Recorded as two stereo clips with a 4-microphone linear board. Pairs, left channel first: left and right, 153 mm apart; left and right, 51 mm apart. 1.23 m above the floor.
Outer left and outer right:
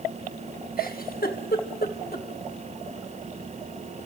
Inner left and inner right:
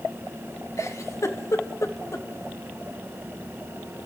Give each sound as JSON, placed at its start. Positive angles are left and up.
{"t": 0.8, "sound": "a giggle", "side_deg": 75, "distance_m": 2.5}